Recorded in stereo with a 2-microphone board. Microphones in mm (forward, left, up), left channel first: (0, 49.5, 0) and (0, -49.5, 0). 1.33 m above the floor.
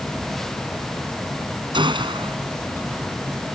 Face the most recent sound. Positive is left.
turn(degrees=-55)  # may be behind; listen again after turning